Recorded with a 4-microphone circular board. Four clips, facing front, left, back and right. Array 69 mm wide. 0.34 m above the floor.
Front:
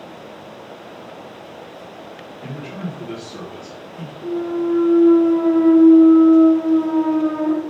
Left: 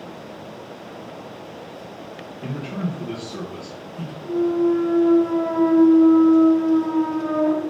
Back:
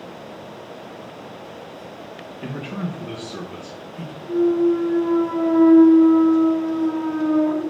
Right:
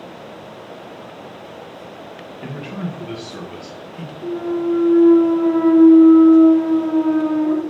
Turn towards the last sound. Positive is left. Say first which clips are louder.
# left 2 dB, back 4 dB
turn(degrees=-60)